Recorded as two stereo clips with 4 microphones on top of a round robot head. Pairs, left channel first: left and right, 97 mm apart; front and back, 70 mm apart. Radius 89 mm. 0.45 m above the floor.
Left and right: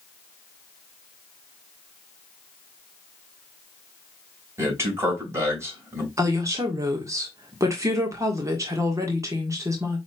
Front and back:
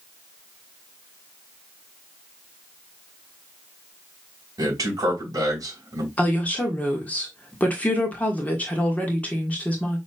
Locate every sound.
4.6 s a man speaking: 145° right, 3.5 m
6.2 s a woman speaking: 55° right, 1.5 m